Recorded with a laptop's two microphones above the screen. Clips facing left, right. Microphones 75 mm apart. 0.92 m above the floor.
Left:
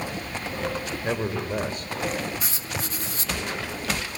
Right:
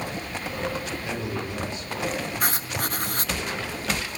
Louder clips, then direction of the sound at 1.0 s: Left 3 dB; 45° left (ahead or behind).